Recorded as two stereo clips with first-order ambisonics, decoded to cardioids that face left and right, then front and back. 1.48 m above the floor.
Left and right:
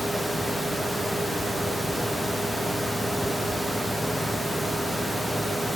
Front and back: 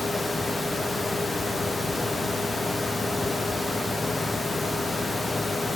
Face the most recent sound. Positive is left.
No sound to turn to.